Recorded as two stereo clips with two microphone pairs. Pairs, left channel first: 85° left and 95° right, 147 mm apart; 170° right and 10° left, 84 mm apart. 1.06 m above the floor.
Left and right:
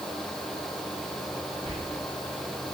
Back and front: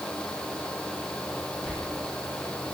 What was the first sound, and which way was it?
Whispering, 75° right.